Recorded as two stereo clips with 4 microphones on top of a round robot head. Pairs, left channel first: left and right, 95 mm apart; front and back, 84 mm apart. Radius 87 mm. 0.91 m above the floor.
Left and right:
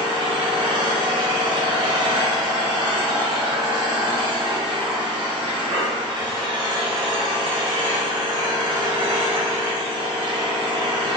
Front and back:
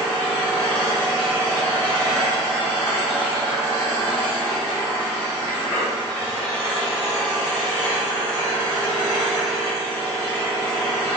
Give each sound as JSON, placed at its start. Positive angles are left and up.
{"t": 0.0, "sound": "an engine running", "azimuth_deg": -75, "distance_m": 0.7}